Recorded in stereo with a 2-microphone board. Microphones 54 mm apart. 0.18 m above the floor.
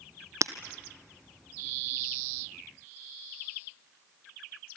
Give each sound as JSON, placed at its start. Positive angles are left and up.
{"t": 0.4, "sound": "breaking glass", "side_deg": -70, "distance_m": 1.1}